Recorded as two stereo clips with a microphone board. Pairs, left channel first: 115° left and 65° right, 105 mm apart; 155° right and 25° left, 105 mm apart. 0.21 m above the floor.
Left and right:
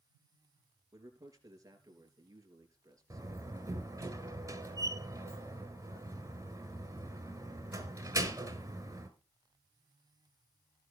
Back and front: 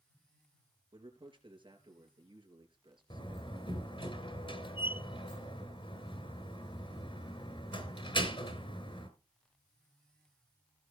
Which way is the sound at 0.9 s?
15° right.